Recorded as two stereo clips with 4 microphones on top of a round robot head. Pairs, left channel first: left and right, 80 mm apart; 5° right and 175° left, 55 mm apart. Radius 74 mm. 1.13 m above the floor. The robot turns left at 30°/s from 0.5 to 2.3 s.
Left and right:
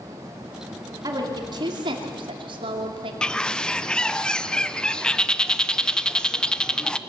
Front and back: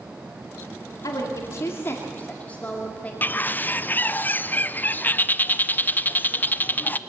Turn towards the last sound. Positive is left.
turn(degrees=15)